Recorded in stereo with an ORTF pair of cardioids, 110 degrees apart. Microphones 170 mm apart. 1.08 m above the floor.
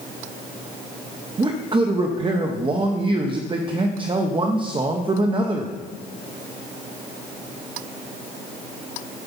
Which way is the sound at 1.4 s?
30° right.